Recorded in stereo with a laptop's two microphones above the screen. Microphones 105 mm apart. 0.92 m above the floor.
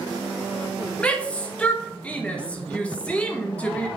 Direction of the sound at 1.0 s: 10° left (ahead or behind).